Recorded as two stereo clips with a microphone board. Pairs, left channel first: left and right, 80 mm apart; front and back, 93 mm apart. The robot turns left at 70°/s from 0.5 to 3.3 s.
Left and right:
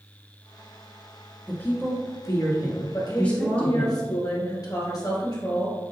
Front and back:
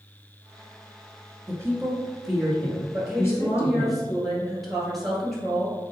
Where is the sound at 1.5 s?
155° left, 1.4 m; by 3.9 s 25° left, 1.4 m.